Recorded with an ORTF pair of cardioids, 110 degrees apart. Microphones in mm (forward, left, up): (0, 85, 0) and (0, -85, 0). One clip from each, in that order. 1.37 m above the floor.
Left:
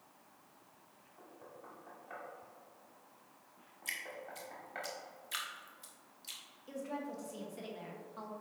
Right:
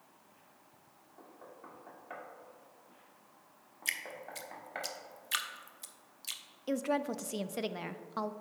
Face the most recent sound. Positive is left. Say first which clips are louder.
# right 9 dB
turn(degrees=-60)